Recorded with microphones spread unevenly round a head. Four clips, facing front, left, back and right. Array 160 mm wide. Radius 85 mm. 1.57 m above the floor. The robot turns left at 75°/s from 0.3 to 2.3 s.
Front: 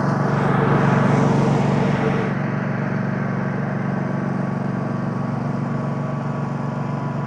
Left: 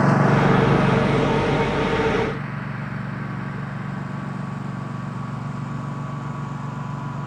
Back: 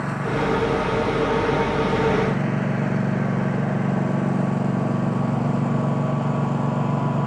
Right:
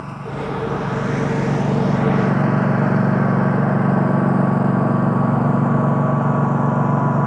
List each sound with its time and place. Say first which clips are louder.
0.0 s a lawn mower: left 10 dB, front 4 dB; 65° left; by 7.3 s 100° right